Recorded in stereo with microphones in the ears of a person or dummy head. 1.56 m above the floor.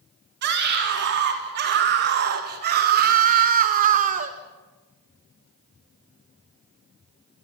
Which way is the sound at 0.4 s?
60° right (ahead or behind).